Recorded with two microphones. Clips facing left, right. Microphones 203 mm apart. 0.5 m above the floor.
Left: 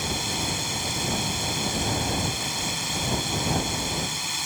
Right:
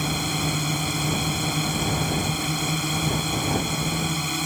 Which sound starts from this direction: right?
A drone, at 0.0 s.